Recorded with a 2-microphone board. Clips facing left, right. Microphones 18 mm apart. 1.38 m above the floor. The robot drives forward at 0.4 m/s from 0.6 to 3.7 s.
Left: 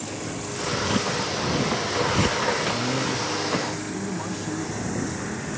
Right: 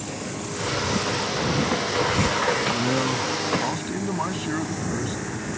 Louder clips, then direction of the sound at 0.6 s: Even; 55° left (ahead or behind).